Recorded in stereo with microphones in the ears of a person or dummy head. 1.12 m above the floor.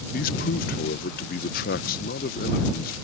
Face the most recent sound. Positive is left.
turn(degrees=45)  # may be behind; listen again after turning